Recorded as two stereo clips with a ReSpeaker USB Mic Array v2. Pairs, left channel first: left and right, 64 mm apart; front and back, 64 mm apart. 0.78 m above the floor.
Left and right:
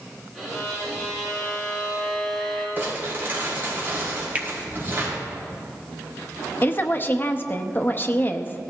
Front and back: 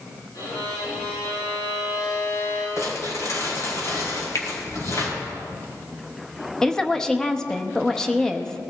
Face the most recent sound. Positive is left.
turn(degrees=75)